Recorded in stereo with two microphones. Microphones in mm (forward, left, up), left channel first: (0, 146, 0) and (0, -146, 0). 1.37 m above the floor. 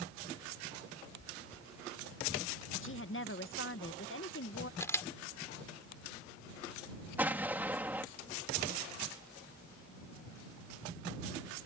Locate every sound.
1.2 s chewing: 25° left (ahead or behind)
2.7 s a woman speaking: 45° left (ahead or behind)
4.8 s a camera shutter: 10° left (ahead or behind)
7.2 s an explosion: 5° right (ahead or behind)